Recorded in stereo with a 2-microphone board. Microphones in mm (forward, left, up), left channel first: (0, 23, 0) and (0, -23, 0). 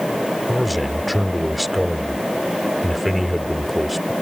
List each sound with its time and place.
0.5 s a man speaking: centre (ahead or behind)